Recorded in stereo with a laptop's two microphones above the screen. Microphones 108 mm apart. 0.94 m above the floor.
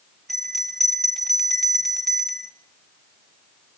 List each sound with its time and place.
0.3 s a bell: centre (ahead or behind), 1.1 m